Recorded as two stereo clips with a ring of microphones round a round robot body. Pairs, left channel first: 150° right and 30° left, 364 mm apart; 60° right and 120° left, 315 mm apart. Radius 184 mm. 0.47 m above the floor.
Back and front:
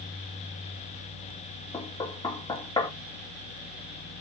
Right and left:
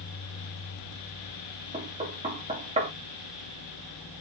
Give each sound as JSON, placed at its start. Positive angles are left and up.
{"t": 1.7, "sound": "knocking", "azimuth_deg": 150, "distance_m": 0.9}